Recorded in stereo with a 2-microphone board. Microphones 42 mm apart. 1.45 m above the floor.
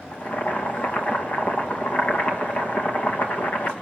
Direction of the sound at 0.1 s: 40° left (ahead or behind).